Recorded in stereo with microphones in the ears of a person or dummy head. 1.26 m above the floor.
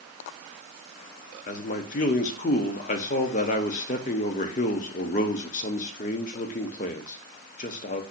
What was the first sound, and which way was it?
A man speaking, 40° left (ahead or behind).